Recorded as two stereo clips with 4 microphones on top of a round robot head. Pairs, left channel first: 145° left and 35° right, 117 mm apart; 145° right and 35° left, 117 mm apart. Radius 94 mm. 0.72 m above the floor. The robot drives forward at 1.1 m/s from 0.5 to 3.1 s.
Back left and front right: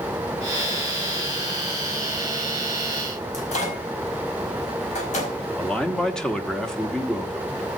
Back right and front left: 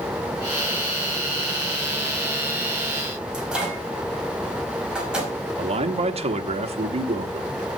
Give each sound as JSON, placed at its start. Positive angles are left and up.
{"t": 3.3, "sound": "a microwave", "azimuth_deg": 120, "distance_m": 4.5}
{"t": 5.6, "sound": "a man speaking", "azimuth_deg": 60, "distance_m": 1.4}